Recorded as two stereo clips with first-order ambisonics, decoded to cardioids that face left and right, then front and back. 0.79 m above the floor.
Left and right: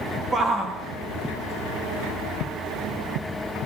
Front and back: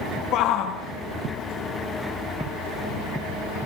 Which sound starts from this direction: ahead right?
A shout, at 0.3 s.